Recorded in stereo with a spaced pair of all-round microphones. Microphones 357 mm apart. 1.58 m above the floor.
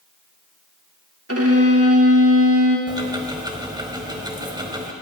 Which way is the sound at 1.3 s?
40° right (ahead or behind).